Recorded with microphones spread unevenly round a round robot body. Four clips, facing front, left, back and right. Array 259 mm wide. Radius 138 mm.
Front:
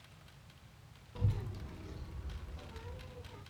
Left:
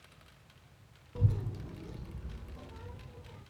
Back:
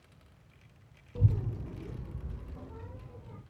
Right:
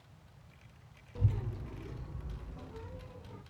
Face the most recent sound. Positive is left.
turn(degrees=175)